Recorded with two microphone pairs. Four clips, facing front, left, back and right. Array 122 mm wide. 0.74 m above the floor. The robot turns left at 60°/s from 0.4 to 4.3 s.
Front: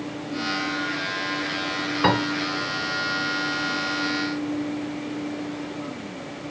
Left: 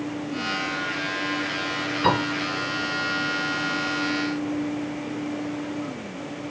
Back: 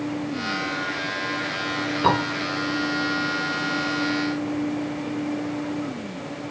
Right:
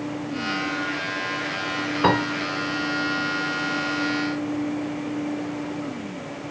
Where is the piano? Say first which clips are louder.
Right 2 dB, back 1 dB; 55° right, 2.5 m; by 2.2 s 65° right, 2.5 m.